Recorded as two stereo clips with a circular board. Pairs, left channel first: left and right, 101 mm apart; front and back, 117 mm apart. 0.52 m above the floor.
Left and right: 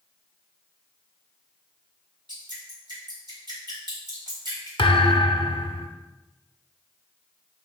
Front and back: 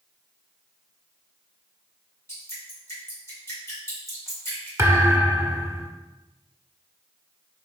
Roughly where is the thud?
Left.